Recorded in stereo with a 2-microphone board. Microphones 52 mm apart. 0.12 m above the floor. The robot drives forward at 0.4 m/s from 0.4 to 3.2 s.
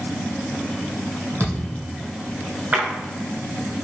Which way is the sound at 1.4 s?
35° left (ahead or behind).